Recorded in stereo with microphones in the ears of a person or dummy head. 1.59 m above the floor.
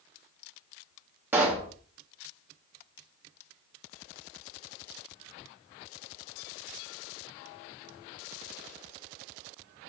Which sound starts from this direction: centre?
A pop, at 1.3 s.